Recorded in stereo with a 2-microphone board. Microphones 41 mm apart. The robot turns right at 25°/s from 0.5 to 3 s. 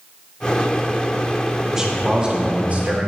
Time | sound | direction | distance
1.7 | a man speaking | 170° right | 1.7 m